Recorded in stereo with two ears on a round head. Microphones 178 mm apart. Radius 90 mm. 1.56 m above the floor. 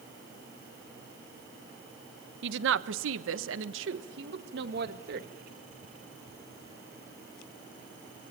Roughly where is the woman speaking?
Right.